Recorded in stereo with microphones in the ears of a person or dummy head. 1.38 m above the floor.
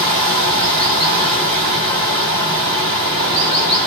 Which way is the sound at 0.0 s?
10° right (ahead or behind).